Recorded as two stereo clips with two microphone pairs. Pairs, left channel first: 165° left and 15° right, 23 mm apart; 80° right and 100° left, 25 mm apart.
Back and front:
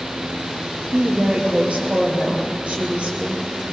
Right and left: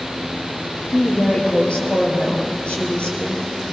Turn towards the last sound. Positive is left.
turn(degrees=-40)